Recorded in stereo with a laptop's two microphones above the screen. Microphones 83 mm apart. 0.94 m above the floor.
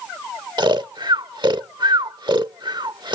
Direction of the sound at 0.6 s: 60° right (ahead or behind).